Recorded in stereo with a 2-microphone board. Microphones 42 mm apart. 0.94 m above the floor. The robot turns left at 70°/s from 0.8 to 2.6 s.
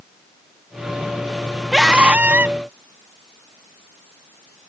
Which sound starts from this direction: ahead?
A scream, at 1.7 s.